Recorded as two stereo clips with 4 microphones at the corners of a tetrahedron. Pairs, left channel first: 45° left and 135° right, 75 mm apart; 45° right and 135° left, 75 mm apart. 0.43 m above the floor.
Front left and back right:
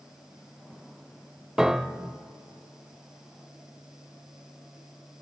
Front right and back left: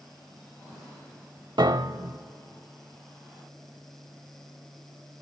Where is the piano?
140° left, 0.5 m.